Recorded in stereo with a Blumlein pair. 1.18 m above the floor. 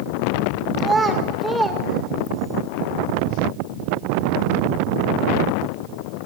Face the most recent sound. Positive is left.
turn(degrees=10)